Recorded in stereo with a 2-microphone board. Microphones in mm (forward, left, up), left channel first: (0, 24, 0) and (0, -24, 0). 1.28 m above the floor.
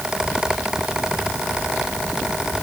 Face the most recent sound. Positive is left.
No sound to turn to.